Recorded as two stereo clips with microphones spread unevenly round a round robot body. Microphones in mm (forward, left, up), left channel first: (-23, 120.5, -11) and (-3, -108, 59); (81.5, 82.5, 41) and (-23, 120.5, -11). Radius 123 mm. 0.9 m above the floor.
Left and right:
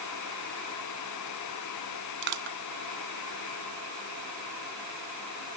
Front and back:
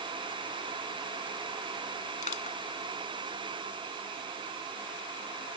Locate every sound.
2.2 s crushing: 40° right